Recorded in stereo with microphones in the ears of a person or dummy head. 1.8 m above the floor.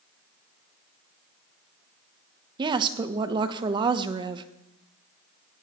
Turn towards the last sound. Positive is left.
turn(degrees=-30)  # may be behind; listen again after turning